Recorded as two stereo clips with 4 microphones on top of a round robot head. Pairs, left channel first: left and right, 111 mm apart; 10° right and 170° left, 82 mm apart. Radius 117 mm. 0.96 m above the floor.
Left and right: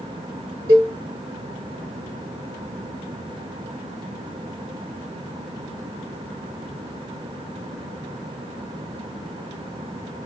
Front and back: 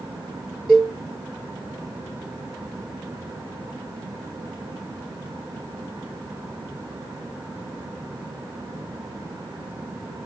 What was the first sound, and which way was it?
A cowbell, 95° right.